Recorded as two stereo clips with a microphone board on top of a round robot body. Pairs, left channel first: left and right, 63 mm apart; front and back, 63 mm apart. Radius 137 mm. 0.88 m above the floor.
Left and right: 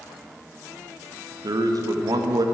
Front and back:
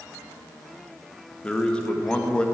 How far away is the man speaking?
About 1.0 m.